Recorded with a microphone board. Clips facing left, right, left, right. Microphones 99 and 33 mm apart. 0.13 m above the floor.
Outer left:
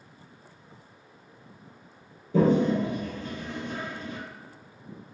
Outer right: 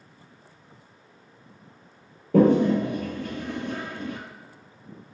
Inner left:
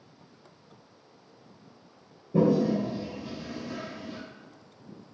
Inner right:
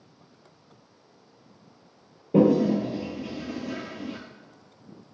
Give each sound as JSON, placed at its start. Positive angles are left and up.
{"t": 2.3, "sound": "a toilet flushing", "side_deg": -70, "distance_m": 0.5}